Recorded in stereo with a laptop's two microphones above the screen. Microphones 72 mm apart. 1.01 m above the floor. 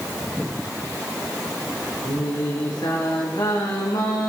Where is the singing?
75° left (ahead or behind), 8 m.